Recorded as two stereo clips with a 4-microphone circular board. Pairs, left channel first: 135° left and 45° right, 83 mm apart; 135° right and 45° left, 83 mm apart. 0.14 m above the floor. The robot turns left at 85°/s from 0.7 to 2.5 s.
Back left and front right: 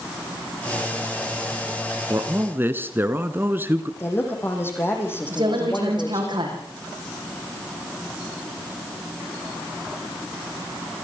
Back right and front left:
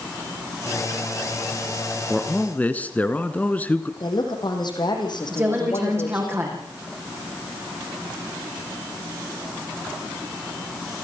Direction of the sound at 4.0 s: 160° right.